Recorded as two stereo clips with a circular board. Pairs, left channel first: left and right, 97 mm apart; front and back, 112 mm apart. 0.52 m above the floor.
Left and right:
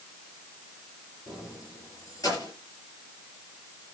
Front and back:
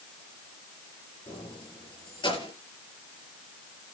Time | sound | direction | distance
1.3 | keys jangling | 45° left | 7 m